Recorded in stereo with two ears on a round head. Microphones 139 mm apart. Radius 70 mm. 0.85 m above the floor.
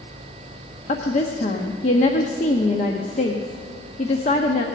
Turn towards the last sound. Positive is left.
turn(degrees=45)  # may be behind; listen again after turning